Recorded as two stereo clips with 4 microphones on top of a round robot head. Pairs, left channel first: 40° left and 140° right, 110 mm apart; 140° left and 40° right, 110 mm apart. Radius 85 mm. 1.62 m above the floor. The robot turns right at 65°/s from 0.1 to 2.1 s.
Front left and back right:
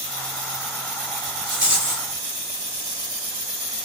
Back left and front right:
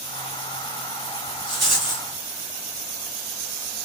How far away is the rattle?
About 1.4 m.